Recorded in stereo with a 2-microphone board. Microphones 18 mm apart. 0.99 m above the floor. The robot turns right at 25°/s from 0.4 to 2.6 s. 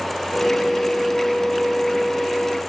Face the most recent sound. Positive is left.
No sound to turn to.